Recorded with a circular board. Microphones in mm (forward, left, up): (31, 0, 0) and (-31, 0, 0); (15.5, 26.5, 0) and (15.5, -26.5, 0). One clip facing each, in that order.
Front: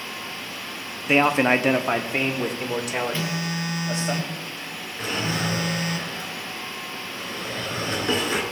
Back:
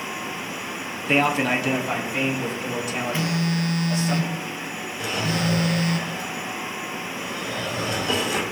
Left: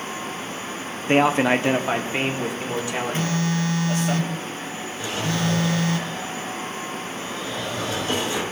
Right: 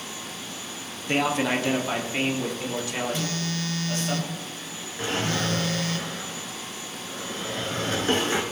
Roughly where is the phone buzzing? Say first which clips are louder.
Back 3 dB, left 6 dB; left.